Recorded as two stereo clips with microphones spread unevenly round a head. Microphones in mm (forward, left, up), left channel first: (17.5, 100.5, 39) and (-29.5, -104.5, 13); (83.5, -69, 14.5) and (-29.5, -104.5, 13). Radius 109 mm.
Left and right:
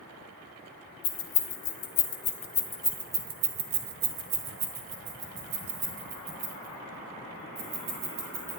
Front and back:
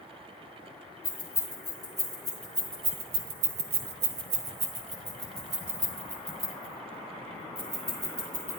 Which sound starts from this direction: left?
Keys jangling, at 1.0 s.